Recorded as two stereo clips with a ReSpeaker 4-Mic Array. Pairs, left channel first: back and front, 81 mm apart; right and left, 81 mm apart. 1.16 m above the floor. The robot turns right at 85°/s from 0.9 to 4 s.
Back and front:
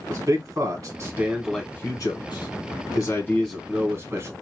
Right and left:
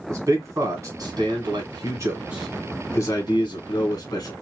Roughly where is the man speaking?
Ahead left.